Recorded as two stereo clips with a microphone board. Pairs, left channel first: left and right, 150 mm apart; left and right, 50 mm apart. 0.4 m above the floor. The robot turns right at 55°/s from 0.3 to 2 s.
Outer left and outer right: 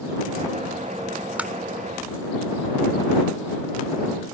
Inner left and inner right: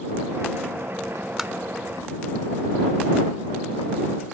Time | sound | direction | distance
1.4 | tapping | 10° right (ahead or behind) | ?